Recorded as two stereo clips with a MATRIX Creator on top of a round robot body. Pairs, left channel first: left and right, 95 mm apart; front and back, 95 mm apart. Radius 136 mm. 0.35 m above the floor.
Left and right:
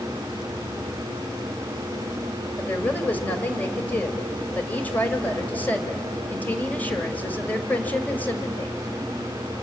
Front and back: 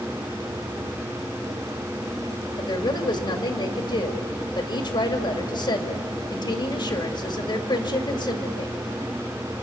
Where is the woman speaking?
20° left, 2 m.